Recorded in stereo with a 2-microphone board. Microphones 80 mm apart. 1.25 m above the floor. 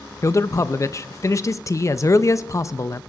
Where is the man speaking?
35° left (ahead or behind), 0.5 m.